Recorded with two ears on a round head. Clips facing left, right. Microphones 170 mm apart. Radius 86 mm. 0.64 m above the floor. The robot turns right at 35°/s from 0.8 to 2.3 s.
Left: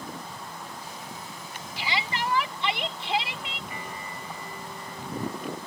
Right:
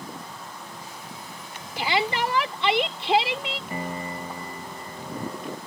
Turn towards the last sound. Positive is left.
turn(degrees=-35)  # may be behind; listen again after turning